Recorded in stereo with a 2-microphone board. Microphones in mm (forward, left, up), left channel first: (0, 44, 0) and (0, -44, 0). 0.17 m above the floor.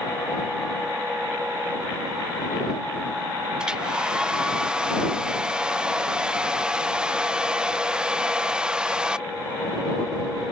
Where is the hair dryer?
10° right (ahead or behind).